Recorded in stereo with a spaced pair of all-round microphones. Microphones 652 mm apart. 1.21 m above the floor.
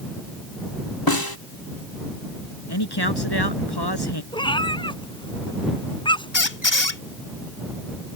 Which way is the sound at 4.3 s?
5° left (ahead or behind).